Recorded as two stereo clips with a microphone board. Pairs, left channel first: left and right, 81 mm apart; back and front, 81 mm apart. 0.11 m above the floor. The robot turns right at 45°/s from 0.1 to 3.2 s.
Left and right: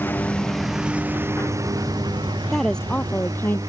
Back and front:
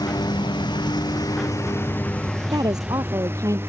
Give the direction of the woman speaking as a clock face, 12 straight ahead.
12 o'clock.